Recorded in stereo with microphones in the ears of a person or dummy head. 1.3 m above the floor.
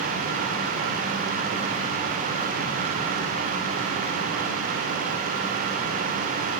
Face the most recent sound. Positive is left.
No sound to turn to.